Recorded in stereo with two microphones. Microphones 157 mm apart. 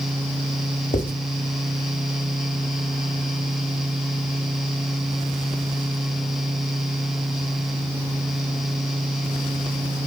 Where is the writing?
60° left (ahead or behind), 1.1 m.